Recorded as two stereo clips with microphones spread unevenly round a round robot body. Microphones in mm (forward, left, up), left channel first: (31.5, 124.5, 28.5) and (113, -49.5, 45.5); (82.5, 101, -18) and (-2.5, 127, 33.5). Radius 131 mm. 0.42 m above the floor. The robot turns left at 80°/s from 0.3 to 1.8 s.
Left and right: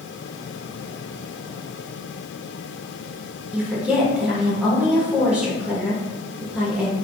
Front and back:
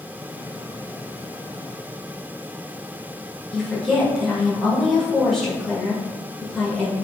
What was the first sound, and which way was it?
A woman speaking, 25° left.